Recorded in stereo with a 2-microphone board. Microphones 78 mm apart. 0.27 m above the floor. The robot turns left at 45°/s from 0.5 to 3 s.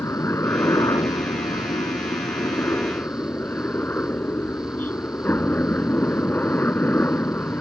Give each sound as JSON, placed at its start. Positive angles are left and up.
{"t": 0.0, "sound": "a helicopter", "azimuth_deg": 140}